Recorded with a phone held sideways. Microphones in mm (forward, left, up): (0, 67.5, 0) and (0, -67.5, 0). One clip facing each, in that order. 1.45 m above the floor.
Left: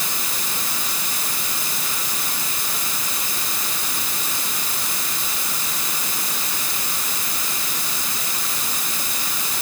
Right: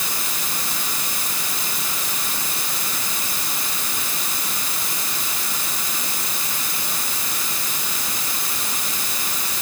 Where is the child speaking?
No child speaking in this recording.